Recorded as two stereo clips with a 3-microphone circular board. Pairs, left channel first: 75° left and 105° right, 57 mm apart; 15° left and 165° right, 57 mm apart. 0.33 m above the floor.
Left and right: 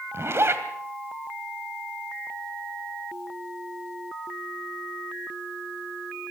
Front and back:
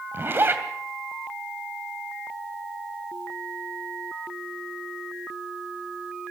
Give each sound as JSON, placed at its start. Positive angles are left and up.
{"t": 0.1, "sound": "a zipper", "azimuth_deg": -130, "distance_m": 2.5}